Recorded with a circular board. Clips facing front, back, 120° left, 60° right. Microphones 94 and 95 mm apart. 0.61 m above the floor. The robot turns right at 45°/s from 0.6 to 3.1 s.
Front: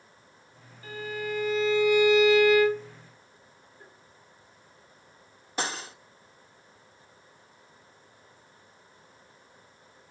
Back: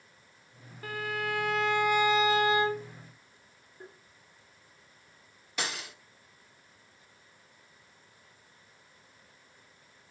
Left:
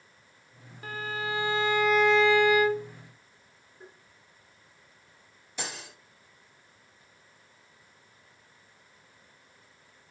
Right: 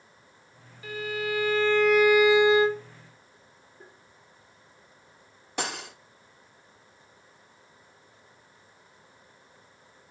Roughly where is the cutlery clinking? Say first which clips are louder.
Front 4 dB, right 6 dB; ahead right.